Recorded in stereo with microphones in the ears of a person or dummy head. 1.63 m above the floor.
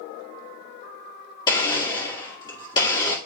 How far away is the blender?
About 2.5 m.